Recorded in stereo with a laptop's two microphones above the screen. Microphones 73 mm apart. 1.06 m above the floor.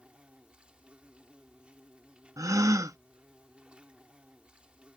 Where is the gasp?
50° right (ahead or behind).